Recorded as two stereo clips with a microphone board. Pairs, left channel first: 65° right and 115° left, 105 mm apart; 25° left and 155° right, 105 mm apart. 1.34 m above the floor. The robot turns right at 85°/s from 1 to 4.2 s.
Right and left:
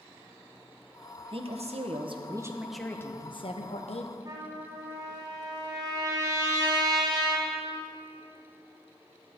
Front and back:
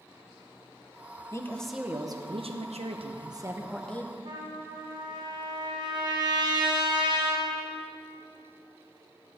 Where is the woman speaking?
80° left, 1.1 m; by 4.2 s 35° right, 1.1 m.